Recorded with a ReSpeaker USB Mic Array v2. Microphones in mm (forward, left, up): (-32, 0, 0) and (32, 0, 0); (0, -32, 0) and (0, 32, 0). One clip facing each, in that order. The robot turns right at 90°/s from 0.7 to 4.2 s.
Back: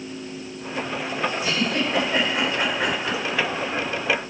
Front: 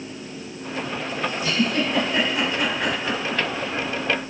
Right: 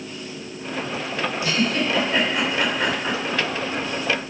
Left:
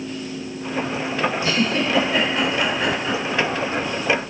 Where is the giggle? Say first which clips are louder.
Front 1 dB, left 1 dB; 105° left, 2.5 m; by 3.4 s 75° right, 2.5 m.